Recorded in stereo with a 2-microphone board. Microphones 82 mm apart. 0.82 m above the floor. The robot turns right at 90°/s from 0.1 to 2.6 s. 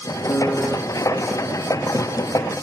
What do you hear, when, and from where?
0.3 s a piano: 145° left; by 0.8 s 165° right